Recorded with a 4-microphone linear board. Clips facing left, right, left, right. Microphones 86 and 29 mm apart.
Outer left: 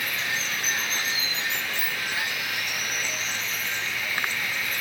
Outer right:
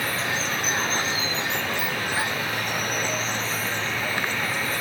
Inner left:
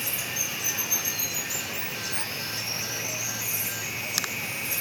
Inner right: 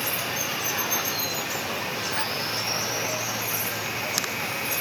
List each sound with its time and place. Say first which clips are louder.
0.0 s running water: outer right 4 dB, inner right 3 dB; 35° right (ahead or behind)